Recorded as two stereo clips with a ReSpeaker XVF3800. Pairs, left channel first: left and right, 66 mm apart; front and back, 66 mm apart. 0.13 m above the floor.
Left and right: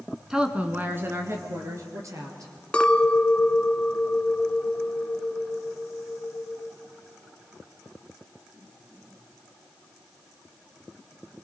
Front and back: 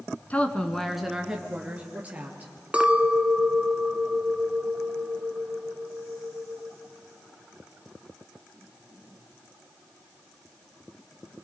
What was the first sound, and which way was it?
A woman speaking, 20° right.